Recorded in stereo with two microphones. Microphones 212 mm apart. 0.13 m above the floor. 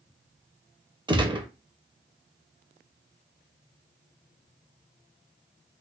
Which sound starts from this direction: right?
A gunshot, at 1.1 s.